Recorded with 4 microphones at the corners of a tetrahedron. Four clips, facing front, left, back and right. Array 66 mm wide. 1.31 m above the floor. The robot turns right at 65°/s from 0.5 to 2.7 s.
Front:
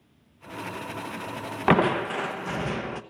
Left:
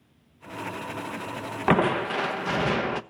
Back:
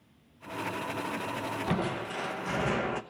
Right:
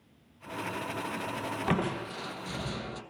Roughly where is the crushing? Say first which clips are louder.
Left 11 dB, front 14 dB; ahead left.